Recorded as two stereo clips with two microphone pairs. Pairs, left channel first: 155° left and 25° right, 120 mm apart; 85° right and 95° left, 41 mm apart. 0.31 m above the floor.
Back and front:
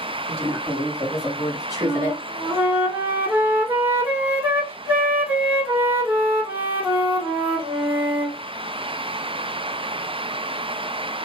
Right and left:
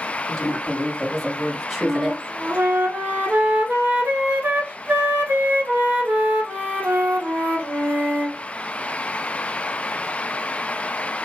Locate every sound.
0.3 s a woman speaking: 5° left, 3 m; by 2.2 s straight ahead, 1.4 m
1.8 s a flute: 50° left, 1.2 m